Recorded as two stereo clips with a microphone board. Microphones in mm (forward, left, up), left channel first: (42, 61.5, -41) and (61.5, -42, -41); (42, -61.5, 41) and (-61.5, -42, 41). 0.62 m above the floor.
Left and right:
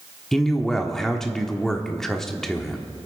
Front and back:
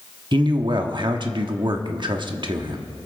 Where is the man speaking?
175° right, 1.0 m.